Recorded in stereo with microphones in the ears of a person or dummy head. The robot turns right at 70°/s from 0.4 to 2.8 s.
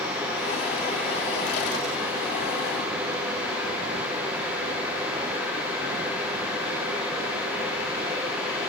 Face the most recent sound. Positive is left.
No sound to turn to.